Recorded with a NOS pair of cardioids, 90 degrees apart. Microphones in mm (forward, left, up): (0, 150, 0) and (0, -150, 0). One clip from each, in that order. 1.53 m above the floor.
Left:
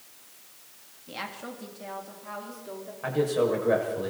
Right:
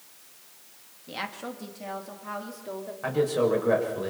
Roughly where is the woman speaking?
Ahead.